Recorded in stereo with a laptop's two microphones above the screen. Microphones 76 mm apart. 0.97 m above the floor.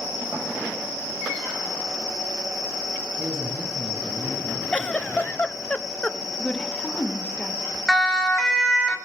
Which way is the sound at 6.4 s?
15° left (ahead or behind).